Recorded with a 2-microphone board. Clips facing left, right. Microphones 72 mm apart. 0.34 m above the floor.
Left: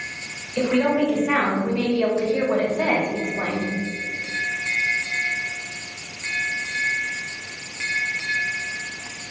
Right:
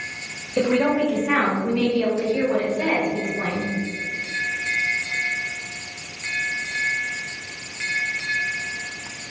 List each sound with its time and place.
0.6 s a woman speaking: 30° right (ahead or behind), 1.6 m; by 3.7 s 60° left (ahead or behind), 3 m